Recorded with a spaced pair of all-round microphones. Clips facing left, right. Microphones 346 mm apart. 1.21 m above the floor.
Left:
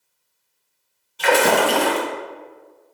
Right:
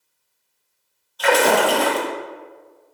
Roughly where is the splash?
Left.